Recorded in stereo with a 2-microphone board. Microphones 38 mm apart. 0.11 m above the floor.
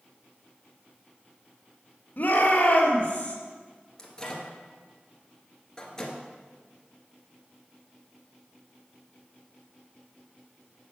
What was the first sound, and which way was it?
A shout, 55° left (ahead or behind).